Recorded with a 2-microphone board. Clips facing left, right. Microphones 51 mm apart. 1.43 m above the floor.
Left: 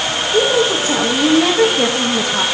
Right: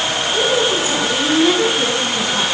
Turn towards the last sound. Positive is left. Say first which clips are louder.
# left 3 dB
turn(degrees=65)  # may be behind; listen again after turning